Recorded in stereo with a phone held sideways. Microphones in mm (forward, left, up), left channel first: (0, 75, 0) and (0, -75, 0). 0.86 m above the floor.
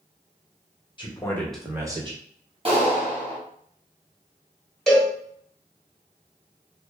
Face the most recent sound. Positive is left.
turn(degrees=0)  # may be behind; listen again after turning